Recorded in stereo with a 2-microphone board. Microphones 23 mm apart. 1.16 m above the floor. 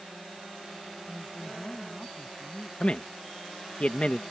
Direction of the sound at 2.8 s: 55° left (ahead or behind).